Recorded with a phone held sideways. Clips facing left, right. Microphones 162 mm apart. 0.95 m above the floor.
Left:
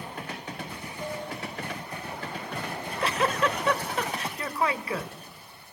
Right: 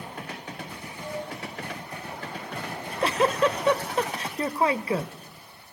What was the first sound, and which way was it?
Dishes clattering, 55° left (ahead or behind).